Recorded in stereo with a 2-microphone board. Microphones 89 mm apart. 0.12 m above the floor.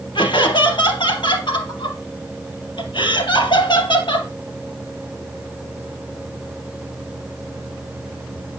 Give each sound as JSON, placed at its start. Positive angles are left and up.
{"t": 0.1, "sound": "laughter", "side_deg": 60, "distance_m": 3.5}